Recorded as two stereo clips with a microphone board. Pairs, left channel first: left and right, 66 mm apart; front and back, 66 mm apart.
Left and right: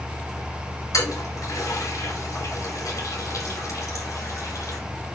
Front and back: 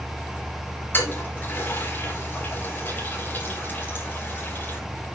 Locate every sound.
0.9 s a toilet flushing: 55° left, 5 m